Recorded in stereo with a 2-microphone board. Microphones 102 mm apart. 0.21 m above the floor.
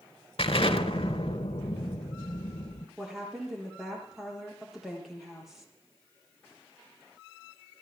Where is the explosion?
65° left (ahead or behind), 1.8 m.